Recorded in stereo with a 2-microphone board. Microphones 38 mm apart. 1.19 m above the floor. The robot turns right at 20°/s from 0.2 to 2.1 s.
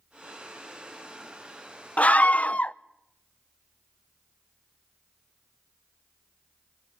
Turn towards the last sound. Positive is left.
turn(degrees=40)  # may be behind; listen again after turning